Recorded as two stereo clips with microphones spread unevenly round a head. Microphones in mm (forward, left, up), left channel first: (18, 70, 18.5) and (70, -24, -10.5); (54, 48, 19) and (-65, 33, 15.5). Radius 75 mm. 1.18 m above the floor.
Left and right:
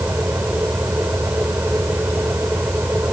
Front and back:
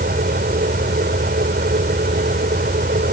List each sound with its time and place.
0.0 s a fan: 145° right